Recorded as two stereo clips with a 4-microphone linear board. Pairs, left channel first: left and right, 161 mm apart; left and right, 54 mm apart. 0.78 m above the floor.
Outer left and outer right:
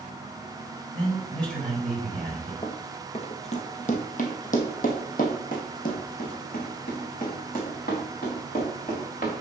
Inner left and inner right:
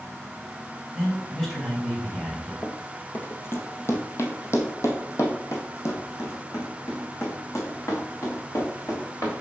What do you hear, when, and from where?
0.9 s a man speaking: 5° left (ahead or behind), 3.5 m
2.6 s running footsteps: 25° left (ahead or behind), 0.9 m; by 9.3 s 55° left (ahead or behind), 3.5 m